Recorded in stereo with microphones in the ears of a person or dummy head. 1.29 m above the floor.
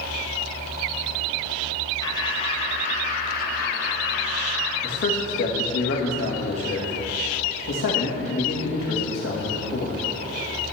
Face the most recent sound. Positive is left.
turn(degrees=65)  # may be behind; listen again after turning